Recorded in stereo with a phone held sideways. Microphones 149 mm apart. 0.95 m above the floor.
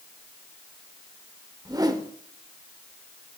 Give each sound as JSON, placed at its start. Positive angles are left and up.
{"t": 1.6, "sound": "a whoosh", "side_deg": -25, "distance_m": 0.9}